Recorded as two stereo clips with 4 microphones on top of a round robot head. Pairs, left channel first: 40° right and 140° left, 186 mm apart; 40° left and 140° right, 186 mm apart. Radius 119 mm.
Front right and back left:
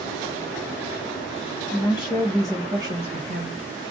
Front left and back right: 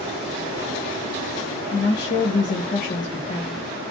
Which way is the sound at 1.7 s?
20° left.